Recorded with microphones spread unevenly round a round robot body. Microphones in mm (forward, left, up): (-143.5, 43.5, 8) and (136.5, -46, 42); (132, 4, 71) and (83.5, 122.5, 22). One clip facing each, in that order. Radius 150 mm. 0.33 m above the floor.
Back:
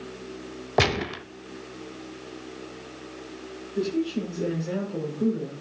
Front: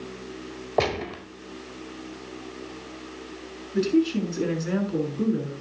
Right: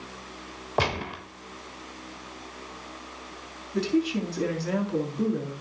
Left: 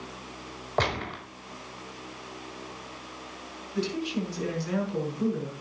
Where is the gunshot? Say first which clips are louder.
Back 1 dB, right 1 dB; 165° right, 1.1 m.